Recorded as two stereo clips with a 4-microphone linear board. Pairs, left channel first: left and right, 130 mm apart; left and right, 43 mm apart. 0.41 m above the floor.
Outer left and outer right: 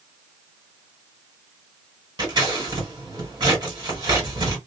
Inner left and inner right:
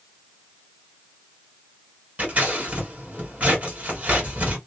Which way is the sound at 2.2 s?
35° right (ahead or behind).